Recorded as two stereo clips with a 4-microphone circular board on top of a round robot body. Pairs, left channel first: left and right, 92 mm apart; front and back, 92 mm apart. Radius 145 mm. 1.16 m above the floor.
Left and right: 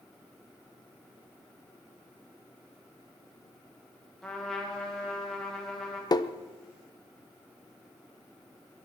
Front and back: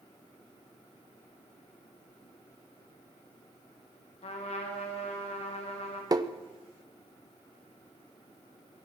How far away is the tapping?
About 0.9 m.